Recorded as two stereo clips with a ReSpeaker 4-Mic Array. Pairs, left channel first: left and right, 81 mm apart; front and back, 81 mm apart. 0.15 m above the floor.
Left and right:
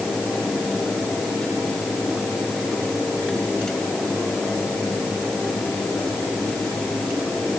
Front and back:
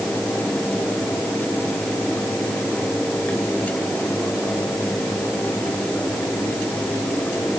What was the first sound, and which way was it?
Only background noise.